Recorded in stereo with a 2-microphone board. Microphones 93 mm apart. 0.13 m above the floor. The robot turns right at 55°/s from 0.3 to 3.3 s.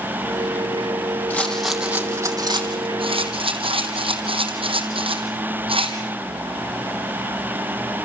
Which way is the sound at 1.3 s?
15° left (ahead or behind).